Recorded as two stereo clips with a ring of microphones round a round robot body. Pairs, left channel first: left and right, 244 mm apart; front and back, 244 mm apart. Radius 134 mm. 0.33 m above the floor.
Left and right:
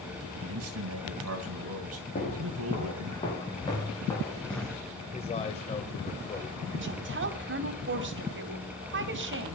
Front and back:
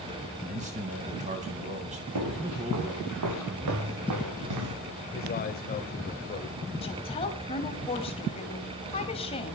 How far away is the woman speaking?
About 2 m.